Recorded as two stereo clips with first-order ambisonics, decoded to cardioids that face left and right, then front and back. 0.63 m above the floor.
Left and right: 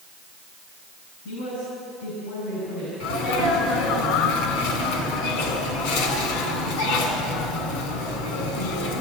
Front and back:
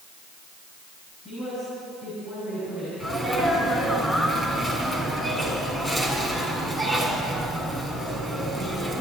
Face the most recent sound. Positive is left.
turn(degrees=75)